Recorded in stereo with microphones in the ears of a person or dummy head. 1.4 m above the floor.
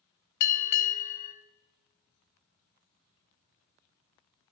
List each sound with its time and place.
0.4 s a bell: 60° left (ahead or behind), 0.6 m